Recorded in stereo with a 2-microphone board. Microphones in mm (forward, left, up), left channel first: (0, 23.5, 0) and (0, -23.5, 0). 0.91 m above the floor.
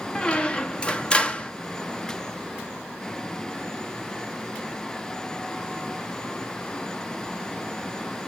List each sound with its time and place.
0.1 s a squeak: 20° left (ahead or behind), 0.6 m